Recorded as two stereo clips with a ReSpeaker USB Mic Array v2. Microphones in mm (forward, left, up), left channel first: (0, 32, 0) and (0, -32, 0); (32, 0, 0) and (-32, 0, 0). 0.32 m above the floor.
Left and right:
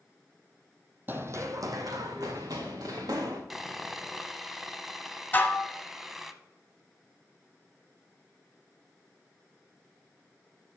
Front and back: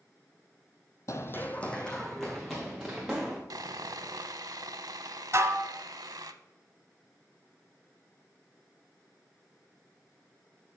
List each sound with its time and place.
1.1 s running footsteps: 35° right, 0.8 m; by 3.4 s 95° right, 3 m
3.5 s sawing: 175° right, 0.5 m
5.3 s dishes clattering: 150° left, 1.2 m